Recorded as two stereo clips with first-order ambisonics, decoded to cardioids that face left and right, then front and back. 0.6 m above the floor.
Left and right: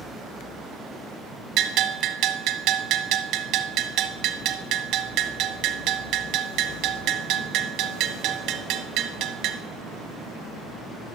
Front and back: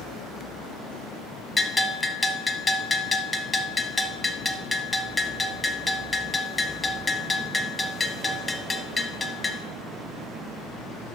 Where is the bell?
75° right, 0.6 m.